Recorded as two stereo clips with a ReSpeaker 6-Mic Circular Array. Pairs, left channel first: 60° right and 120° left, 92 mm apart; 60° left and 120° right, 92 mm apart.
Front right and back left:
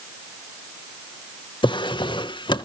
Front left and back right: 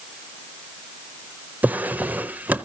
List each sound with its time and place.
1.6 s a drawer: 50° right, 0.6 m